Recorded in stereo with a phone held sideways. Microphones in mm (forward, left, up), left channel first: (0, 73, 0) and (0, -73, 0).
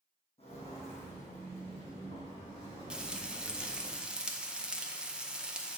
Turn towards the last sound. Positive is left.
turn(degrees=-5)  # may be behind; listen again after turning